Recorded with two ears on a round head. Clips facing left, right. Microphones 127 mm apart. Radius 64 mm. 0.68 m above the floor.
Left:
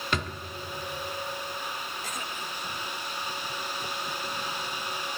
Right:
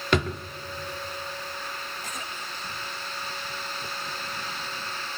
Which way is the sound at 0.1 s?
55° right (ahead or behind).